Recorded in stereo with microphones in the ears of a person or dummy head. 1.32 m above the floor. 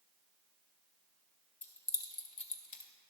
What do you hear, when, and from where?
1.6 s keys jangling: 15° left (ahead or behind), 1.0 m; by 2.9 s 50° left (ahead or behind), 1.0 m